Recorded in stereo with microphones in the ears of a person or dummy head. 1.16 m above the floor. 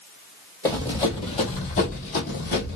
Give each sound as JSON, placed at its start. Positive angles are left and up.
{"t": 0.7, "sound": "running footsteps", "side_deg": 15, "distance_m": 1.5}